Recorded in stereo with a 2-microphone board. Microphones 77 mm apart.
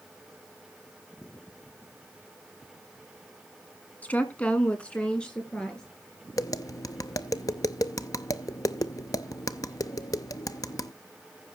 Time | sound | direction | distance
4.0 | a woman speaking | 20° left (ahead or behind) | 1.5 m
6.4 | tapping | 55° left (ahead or behind) | 0.6 m